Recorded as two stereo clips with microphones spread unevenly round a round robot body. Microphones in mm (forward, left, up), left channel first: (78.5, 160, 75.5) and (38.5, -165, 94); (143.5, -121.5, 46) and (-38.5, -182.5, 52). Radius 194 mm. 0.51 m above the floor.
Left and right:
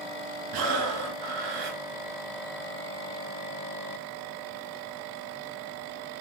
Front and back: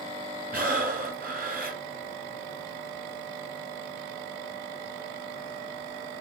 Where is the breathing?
120° right, 1.6 m.